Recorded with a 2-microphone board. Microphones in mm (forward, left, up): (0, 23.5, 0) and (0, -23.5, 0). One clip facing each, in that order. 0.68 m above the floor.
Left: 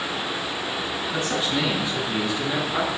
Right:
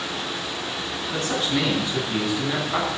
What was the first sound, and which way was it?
A man speaking, 50° right (ahead or behind).